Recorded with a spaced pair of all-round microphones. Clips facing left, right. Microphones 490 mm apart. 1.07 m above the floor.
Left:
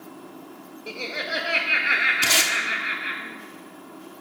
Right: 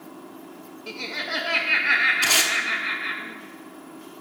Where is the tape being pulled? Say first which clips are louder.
Left 1 dB; 40° left (ahead or behind), 0.9 m.